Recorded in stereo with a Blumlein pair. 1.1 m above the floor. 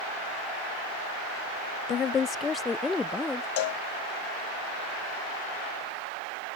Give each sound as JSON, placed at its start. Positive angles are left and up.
{"t": 1.9, "sound": "a woman speaking", "azimuth_deg": 30}
{"t": 3.6, "sound": "a cowbell", "azimuth_deg": 50}